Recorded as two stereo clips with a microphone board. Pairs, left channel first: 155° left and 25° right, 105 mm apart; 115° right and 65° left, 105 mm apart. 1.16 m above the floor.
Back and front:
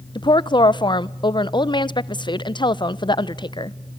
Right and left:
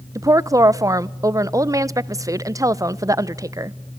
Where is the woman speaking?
120° left, 0.7 m.